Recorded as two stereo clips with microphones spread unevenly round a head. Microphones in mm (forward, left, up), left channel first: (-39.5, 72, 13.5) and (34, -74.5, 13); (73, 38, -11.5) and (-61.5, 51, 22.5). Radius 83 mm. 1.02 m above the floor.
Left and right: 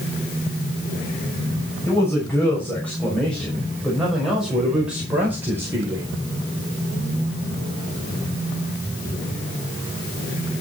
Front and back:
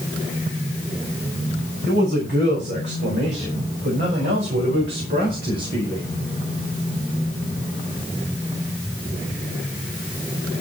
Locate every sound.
1.9 s a man speaking: 165° right, 6.5 m; by 6.0 s 135° right, 5 m